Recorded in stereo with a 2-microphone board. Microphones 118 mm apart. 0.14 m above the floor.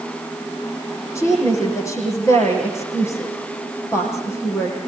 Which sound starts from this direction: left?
A woman speaking, at 1.1 s.